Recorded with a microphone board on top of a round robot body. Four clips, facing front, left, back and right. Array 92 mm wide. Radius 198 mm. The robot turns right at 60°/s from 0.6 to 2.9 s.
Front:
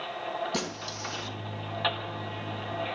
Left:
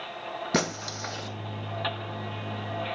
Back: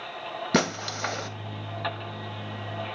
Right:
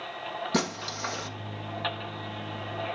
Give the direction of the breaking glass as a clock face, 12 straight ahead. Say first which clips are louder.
Left 2 dB, back 8 dB; 7 o'clock.